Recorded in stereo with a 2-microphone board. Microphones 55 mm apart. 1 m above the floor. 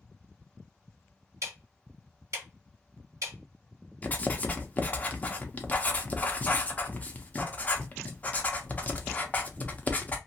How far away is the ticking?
About 1.7 m.